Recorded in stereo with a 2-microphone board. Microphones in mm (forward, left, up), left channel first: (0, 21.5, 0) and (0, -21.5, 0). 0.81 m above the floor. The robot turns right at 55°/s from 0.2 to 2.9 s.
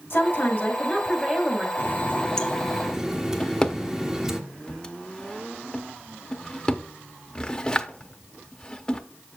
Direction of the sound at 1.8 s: 130° left.